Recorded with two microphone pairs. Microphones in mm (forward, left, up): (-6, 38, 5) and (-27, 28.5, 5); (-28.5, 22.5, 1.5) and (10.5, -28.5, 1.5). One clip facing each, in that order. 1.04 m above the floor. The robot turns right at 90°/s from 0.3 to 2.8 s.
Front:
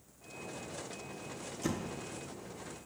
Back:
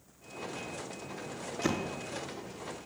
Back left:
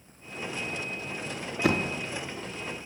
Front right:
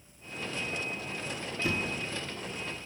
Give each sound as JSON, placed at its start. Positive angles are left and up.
{"t": 1.6, "sound": "a door slam", "azimuth_deg": 145, "distance_m": 0.7}